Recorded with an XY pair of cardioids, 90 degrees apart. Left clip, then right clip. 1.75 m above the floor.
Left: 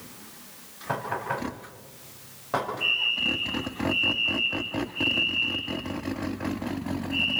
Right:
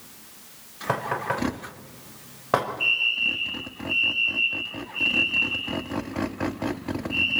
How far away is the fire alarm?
About 7.5 m.